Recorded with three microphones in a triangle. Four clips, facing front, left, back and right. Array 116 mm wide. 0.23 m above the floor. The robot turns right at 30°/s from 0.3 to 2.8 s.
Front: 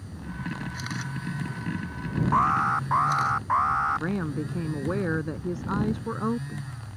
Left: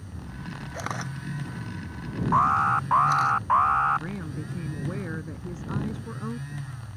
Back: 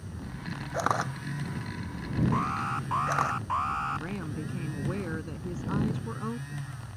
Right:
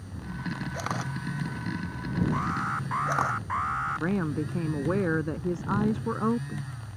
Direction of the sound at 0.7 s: Straight behind.